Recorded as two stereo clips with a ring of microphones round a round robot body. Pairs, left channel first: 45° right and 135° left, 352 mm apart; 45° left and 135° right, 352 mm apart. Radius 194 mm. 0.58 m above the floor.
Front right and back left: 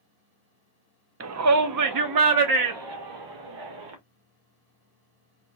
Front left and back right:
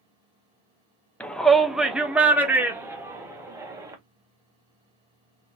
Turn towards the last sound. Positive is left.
turn(degrees=145)